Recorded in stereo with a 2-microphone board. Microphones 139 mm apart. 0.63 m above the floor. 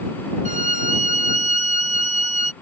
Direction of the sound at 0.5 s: 60° right (ahead or behind).